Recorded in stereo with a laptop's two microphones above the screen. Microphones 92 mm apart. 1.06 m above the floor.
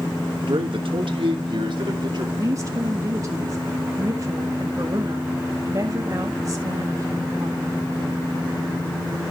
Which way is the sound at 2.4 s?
40° right (ahead or behind).